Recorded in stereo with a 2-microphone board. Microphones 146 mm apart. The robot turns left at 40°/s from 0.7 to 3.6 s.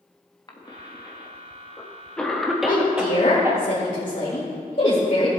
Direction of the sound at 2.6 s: 65° left (ahead or behind).